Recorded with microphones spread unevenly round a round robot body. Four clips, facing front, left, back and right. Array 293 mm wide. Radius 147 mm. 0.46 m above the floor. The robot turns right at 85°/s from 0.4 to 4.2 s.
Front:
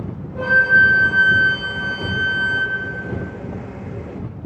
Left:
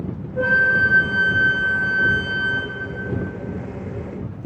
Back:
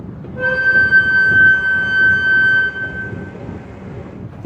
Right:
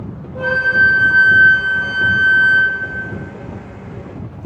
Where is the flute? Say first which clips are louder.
Right 3 dB, even; 75° right, 0.8 m; by 2.7 s 125° left, 0.8 m.